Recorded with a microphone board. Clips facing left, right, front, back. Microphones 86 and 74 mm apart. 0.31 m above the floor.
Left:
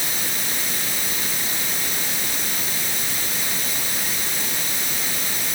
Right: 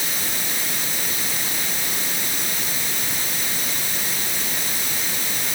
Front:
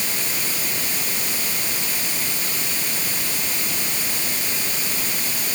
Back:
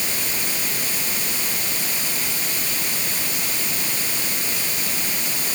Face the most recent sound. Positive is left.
No sound to turn to.